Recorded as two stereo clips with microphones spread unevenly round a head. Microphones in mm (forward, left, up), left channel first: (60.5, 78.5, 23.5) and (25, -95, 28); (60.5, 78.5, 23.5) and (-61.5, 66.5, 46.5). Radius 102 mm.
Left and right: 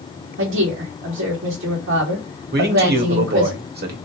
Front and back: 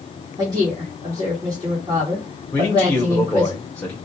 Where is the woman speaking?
105° right, 1.2 m.